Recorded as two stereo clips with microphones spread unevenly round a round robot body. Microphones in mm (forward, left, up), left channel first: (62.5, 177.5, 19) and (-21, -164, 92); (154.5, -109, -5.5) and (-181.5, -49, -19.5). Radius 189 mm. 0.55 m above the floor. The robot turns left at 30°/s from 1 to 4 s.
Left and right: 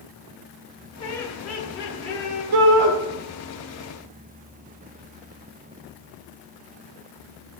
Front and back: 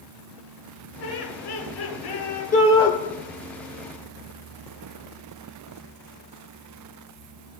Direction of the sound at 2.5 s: 80° right.